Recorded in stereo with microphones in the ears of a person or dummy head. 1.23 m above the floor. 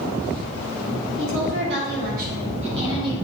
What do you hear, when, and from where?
1.2 s a woman speaking: 80° right, 3 m; by 3.1 s 25° right (ahead or behind), 3 m